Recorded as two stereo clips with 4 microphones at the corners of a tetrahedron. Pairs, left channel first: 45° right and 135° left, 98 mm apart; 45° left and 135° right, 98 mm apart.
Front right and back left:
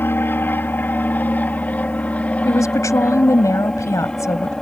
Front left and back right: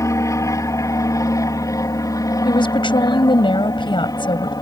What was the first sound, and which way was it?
An aircraft, 10° left.